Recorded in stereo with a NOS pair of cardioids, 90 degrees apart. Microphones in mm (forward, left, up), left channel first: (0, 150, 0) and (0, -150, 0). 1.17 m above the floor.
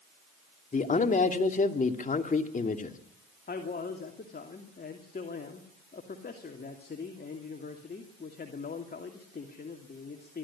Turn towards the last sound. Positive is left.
turn(degrees=35)